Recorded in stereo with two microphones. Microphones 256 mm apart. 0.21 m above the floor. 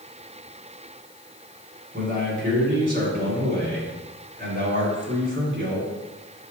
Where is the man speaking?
40° right (ahead or behind), 1.8 m.